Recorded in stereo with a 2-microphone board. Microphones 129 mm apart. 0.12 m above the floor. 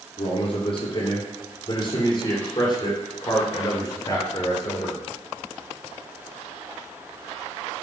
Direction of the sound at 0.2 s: 50° left (ahead or behind).